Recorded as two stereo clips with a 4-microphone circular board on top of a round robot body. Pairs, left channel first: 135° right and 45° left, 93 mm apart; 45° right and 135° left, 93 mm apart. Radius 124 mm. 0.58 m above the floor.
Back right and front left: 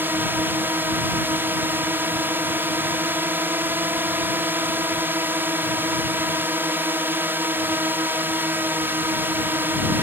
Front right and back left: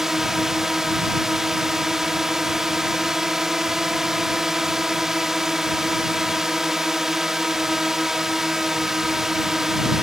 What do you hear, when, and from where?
0.0 s a drone: 55° left